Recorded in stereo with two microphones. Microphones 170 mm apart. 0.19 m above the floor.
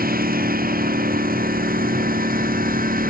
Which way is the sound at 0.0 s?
65° right (ahead or behind).